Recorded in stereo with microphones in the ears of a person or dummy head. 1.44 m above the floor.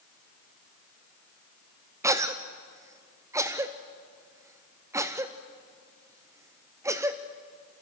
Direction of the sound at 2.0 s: 15° right (ahead or behind).